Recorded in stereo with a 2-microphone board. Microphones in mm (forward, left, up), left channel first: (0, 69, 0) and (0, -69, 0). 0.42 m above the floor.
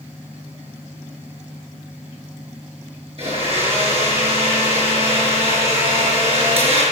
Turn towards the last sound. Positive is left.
turn(degrees=-45)  # may be behind; listen again after turning